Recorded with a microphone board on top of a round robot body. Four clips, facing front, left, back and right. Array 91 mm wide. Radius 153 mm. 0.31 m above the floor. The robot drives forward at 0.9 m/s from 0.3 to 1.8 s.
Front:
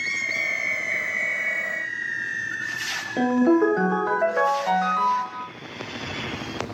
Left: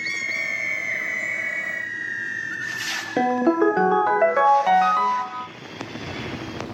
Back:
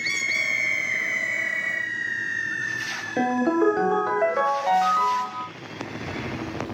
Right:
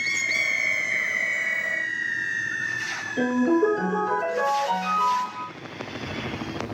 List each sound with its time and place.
3.2 s a ringtone: 95° left, 1.0 m